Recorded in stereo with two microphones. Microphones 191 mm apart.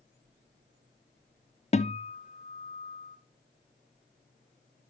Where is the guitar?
35° left (ahead or behind), 0.7 m.